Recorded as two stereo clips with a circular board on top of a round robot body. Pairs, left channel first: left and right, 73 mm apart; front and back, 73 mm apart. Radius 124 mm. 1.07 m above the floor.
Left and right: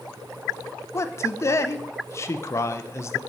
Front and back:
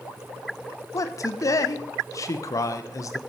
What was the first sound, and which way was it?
A man speaking, 40° left.